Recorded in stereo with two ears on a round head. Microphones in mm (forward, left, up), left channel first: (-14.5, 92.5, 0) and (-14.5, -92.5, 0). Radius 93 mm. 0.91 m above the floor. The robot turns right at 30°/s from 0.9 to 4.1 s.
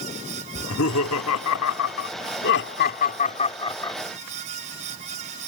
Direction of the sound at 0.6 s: 70° left (ahead or behind).